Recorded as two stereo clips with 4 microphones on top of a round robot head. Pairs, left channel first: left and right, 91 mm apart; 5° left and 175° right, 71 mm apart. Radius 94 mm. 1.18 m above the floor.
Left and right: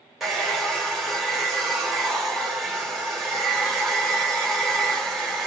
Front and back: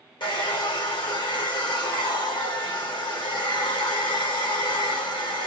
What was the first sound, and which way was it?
A hair dryer, straight ahead.